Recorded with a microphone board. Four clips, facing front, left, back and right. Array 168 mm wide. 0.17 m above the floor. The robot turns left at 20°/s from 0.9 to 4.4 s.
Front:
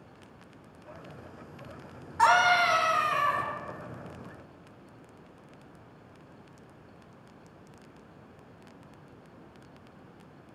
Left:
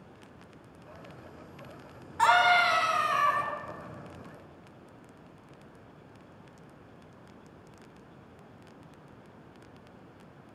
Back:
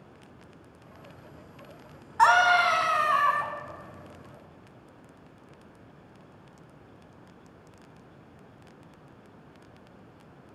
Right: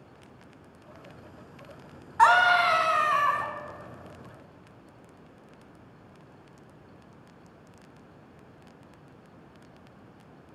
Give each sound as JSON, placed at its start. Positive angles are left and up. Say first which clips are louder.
{"t": 2.2, "sound": "a scream", "louder": "right 3 dB, back 2 dB", "azimuth_deg": -120, "distance_m": 1.4}